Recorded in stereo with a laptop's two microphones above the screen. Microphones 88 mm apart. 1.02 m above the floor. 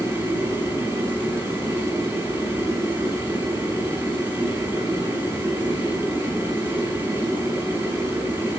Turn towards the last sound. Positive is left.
turn(degrees=-25)  # may be behind; listen again after turning